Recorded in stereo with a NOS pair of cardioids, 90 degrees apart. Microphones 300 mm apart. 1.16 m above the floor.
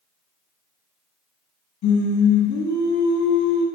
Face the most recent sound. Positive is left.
turn(degrees=60)